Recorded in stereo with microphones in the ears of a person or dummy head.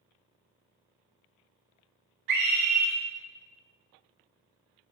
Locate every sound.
2.3 s a scream: 55° right (ahead or behind), 0.7 m